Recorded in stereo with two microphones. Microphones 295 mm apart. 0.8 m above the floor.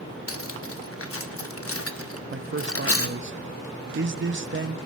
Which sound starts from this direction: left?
Cutlery clinking, at 0.3 s.